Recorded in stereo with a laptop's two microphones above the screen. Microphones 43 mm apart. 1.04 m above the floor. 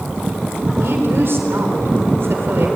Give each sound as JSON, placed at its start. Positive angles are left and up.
{"t": 0.8, "sound": "a woman speaking", "side_deg": -55, "distance_m": 4.0}